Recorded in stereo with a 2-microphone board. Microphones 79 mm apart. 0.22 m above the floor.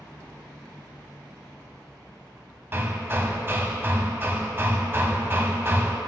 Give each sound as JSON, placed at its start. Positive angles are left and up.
{"t": 2.7, "sound": "hammering", "side_deg": -30, "distance_m": 0.6}